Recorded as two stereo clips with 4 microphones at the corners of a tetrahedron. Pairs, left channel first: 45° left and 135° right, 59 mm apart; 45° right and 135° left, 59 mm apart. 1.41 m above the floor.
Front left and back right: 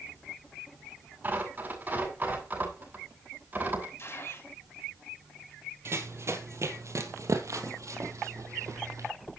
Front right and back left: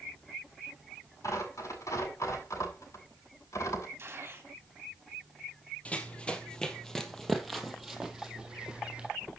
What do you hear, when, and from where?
1.2 s tearing paper: 75° right, 8 m
4.0 s a gunshot: 90° left, 3 m
5.8 s running footsteps: 105° right, 2.5 m; by 9.1 s 150° right, 3 m